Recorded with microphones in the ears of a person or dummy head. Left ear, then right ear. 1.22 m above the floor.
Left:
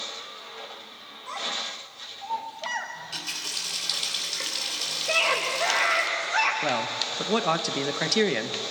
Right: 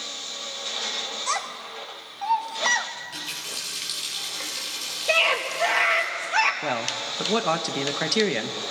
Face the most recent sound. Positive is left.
turn(degrees=0)  # may be behind; listen again after turning